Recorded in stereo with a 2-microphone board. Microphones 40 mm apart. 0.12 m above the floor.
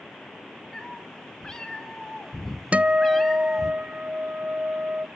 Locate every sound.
0.7 s a cat meowing: 20° left (ahead or behind), 4.5 m; by 3.7 s centre (ahead or behind), 1.5 m
2.7 s a guitar: 35° right (ahead or behind), 0.6 m